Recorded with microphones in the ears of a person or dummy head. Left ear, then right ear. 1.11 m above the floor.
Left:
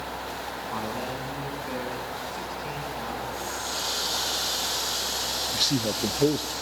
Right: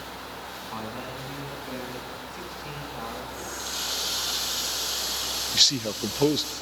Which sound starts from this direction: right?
A man speaking, at 5.5 s.